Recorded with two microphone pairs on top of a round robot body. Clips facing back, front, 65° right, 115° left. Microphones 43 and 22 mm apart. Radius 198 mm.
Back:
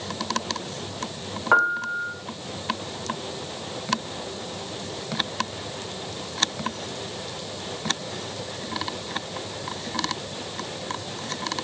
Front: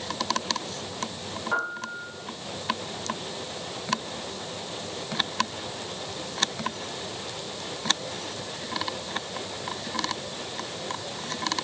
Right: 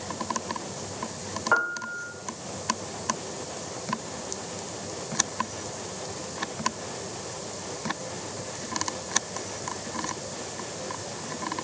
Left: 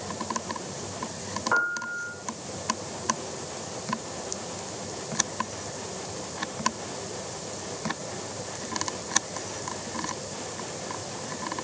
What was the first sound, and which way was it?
A piano, 145° right.